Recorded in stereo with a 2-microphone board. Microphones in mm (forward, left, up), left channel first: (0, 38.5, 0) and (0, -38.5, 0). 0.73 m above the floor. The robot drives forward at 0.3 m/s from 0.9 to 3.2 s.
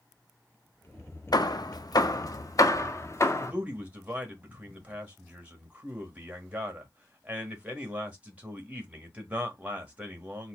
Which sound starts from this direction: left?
Hammering, at 1.3 s.